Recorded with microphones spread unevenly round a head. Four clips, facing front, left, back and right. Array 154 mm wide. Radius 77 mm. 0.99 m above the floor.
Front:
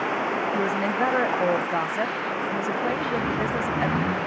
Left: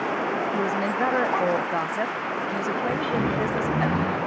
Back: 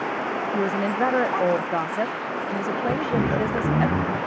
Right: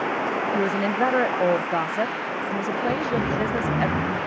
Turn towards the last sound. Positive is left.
turn(degrees=-175)